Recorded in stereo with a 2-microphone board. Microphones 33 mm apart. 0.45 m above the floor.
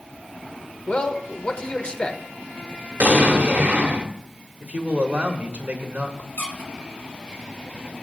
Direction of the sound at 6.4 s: 60° left (ahead or behind).